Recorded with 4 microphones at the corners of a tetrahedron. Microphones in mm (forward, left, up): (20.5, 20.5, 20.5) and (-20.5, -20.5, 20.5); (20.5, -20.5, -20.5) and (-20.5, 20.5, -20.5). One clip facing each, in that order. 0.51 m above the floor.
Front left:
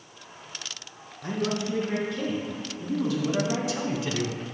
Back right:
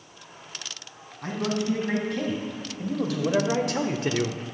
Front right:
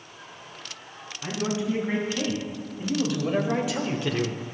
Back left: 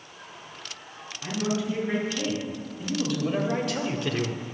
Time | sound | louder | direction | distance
1.2 | a man speaking | back right 1 dB, even | 120° right | 4 m